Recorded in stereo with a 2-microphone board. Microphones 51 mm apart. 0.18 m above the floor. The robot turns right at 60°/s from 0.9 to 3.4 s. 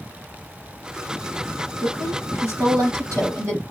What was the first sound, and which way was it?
A woman speaking, 145° right.